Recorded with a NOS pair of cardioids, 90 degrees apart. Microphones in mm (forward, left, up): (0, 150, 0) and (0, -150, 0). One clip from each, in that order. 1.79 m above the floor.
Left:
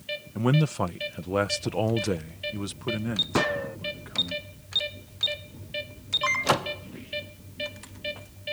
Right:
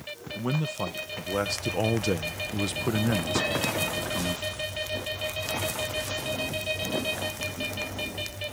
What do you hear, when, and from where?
0.3 s a man speaking: 40° left; by 4.3 s 60° right
3.4 s a gunshot: 20° left